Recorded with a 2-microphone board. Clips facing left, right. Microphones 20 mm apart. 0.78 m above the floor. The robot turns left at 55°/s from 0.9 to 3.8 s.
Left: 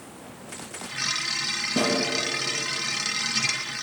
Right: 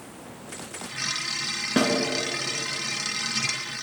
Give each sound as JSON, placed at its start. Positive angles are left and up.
{"t": 1.8, "sound": "a snare drum", "side_deg": -75, "distance_m": 2.5}